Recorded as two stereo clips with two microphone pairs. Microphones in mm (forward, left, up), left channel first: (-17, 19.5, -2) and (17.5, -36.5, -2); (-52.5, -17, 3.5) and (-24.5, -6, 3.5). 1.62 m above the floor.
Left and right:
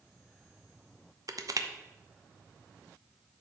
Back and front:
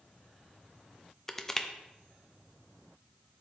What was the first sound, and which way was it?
Crushing, 85° right.